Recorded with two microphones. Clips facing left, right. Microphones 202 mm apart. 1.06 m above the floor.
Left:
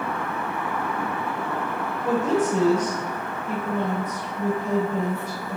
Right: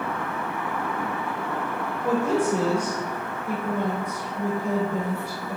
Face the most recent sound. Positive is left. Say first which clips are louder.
# even
turn(degrees=-10)  # may be behind; listen again after turning